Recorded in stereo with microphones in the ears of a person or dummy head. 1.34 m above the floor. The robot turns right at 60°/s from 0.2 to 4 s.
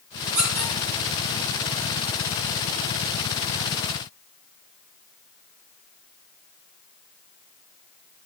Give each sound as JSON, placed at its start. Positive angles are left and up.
{"t": 0.3, "sound": "a squeak", "side_deg": -80, "distance_m": 5.0}